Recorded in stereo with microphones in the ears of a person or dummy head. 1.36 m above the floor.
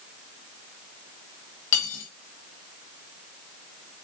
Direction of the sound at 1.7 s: 50° left (ahead or behind).